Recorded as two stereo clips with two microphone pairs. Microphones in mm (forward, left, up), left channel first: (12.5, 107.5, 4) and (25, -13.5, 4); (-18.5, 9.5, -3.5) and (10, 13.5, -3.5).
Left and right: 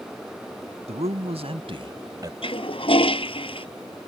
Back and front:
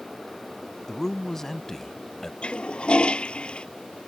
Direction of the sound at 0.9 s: 100° right.